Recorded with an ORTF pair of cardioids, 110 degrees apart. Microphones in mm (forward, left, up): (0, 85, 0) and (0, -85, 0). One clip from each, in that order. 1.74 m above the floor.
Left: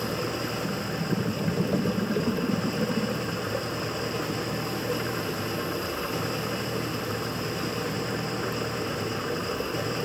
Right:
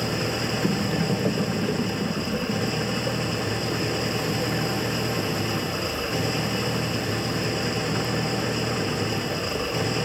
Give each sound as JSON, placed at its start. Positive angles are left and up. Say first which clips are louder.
{"t": 0.0, "sound": "an engine running", "louder": "right 3 dB", "azimuth_deg": -35}